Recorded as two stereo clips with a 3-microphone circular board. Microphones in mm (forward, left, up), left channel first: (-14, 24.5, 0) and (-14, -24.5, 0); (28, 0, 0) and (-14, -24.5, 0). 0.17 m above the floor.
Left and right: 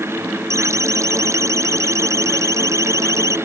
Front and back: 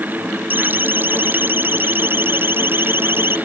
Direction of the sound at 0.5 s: 100° right.